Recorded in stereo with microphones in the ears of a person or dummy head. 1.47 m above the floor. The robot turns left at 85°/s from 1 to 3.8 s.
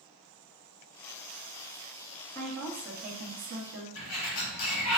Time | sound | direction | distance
2.4 | a woman speaking | 10° left | 1.1 m
4.0 | a sliding door | 80° left | 1.7 m